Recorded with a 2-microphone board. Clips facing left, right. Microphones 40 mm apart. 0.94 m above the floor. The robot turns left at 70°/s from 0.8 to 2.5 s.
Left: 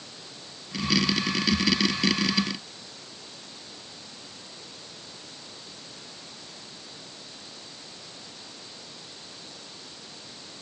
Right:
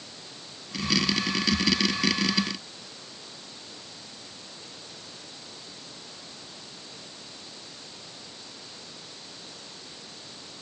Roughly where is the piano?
No piano in this recording.